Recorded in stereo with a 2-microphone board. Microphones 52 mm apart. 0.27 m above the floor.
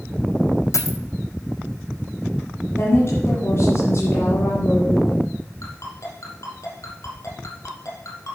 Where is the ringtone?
70° left (ahead or behind), 3.5 m.